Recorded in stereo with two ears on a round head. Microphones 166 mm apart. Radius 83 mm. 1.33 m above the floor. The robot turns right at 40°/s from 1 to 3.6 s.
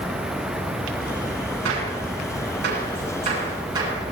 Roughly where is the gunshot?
Right.